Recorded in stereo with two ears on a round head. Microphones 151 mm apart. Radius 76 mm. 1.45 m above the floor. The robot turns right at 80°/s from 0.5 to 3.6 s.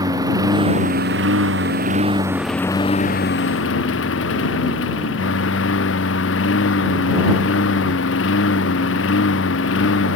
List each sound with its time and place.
0.0 s a lawn mower: 160° right; by 10.2 s 90° left